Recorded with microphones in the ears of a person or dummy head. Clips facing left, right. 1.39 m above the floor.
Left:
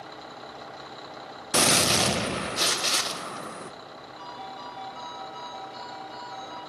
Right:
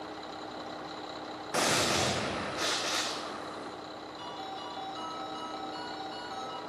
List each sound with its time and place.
1.5 s a gunshot: 45° left (ahead or behind), 0.6 m
4.2 s a ringtone: 15° right (ahead or behind), 1.5 m